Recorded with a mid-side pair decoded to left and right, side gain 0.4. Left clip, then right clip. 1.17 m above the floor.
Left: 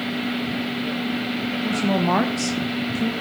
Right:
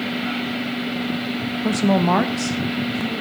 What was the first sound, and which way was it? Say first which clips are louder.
A woman speaking: right 3 dB; 55° right.